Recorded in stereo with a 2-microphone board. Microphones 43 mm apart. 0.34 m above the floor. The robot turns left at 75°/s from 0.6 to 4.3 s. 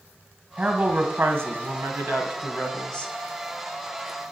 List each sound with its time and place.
0.6 s a woman speaking: 25° right, 2 m; by 3.1 s 145° left, 2 m